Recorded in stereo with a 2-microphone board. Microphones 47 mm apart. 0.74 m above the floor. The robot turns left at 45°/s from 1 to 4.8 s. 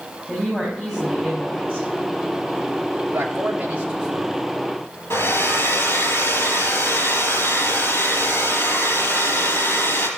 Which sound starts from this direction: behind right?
A man speaking, at 3.1 s.